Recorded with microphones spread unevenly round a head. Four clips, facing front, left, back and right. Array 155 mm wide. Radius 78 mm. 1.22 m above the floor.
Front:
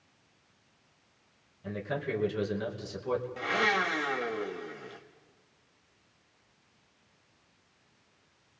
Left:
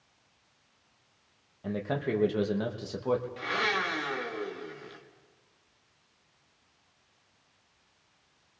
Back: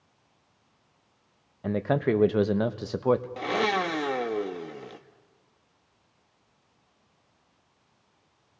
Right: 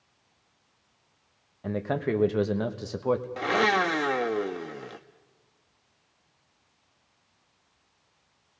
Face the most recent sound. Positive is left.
turn(degrees=-125)